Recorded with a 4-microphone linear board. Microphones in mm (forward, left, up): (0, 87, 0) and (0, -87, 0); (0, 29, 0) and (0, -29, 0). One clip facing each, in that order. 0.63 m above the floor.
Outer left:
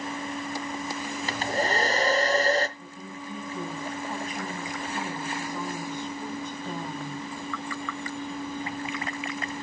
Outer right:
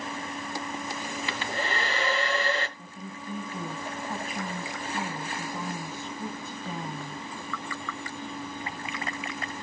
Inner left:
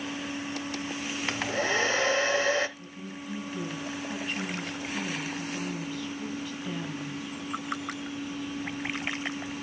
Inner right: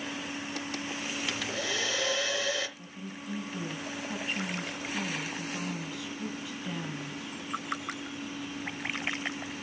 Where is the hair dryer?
40° left (ahead or behind), 1.1 m.